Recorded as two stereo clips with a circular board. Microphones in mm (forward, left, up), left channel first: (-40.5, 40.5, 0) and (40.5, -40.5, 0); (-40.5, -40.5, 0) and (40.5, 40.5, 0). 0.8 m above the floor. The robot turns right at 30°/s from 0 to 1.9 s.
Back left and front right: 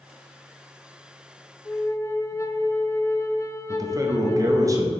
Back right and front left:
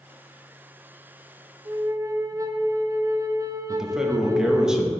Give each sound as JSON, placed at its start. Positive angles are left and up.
{"t": 1.6, "sound": "a flute", "azimuth_deg": 80, "distance_m": 0.5}
{"t": 3.7, "sound": "a man speaking", "azimuth_deg": -35, "distance_m": 0.8}